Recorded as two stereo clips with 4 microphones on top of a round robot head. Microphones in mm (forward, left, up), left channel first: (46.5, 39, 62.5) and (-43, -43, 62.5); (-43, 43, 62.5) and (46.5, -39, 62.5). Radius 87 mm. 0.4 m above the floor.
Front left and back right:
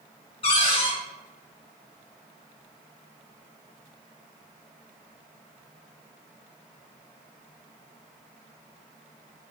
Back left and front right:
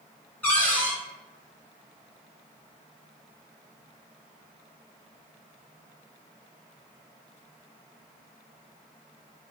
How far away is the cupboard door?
About 1.3 m.